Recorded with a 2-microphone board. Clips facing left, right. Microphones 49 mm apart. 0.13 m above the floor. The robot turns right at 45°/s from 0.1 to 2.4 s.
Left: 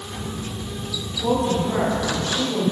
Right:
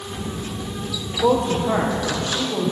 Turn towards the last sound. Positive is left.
turn(degrees=-25)